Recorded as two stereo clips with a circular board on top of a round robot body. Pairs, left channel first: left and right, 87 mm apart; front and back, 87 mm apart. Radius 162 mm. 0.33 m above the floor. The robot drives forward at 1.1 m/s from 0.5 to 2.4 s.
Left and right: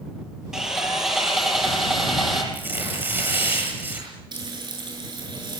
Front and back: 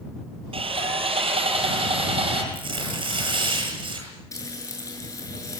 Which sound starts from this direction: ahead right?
Frying, at 4.3 s.